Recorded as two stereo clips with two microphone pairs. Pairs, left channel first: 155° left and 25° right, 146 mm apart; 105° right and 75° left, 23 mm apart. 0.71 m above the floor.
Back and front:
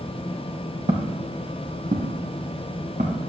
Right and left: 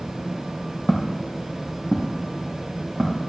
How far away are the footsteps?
About 1.6 m.